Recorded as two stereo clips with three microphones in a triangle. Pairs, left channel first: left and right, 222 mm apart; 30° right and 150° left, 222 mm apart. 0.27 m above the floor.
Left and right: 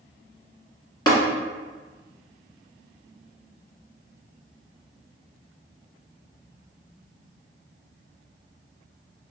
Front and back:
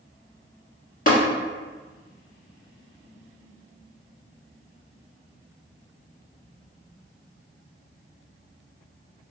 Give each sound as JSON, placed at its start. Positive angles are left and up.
{"t": 1.1, "sound": "tapping", "azimuth_deg": 20, "distance_m": 1.3}